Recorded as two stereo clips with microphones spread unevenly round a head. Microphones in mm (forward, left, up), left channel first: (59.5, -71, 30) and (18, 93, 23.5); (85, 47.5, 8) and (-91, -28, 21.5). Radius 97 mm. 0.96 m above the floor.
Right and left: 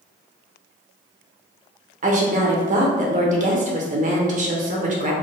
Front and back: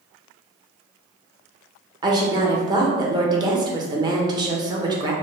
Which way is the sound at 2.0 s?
135° left.